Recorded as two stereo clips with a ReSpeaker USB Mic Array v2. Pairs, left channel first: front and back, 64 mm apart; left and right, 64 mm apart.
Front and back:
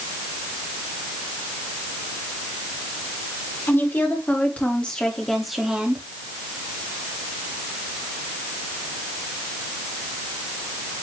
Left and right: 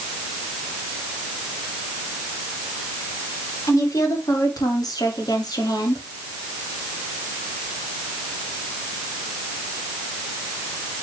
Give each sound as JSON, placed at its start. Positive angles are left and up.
{"t": 3.7, "sound": "a woman speaking", "azimuth_deg": 55, "distance_m": 4.5}